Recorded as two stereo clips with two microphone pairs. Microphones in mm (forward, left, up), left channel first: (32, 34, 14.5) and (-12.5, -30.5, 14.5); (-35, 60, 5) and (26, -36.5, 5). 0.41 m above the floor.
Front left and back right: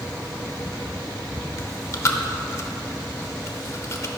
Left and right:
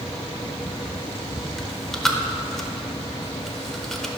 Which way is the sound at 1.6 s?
40° left.